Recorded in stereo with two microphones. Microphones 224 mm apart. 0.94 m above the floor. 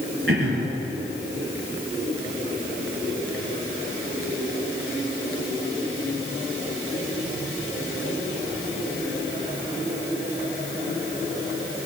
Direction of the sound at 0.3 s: 65° right (ahead or behind).